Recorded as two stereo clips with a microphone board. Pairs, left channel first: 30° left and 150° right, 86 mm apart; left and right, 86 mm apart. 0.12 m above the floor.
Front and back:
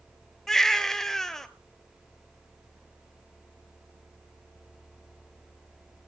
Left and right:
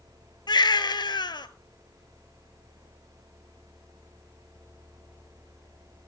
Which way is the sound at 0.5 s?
115° left.